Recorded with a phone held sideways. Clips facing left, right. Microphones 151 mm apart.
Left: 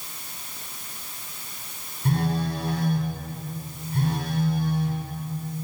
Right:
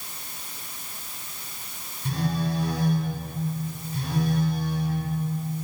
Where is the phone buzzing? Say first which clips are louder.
Left 2 dB; 60° left (ahead or behind), 9.5 m.